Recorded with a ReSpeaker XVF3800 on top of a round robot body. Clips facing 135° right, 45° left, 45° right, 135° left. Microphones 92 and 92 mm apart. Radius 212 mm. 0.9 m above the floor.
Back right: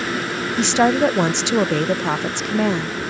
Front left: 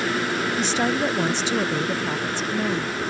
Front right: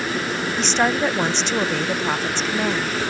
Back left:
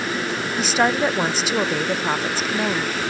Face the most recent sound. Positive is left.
turn(degrees=-140)